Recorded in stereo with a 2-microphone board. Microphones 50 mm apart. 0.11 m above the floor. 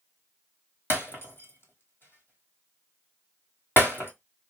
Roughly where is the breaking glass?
Left.